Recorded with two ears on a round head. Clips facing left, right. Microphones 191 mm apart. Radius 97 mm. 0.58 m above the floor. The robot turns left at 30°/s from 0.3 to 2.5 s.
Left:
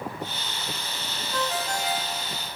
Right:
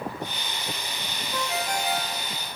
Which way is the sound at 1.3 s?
5° right (ahead or behind).